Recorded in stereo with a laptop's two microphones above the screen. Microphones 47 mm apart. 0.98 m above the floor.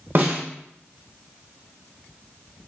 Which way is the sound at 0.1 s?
50° right (ahead or behind).